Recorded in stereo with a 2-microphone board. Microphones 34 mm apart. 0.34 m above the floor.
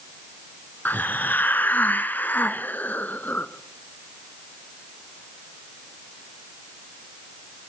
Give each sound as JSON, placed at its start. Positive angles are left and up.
{"t": 0.8, "sound": "a hiss", "side_deg": 70, "distance_m": 1.1}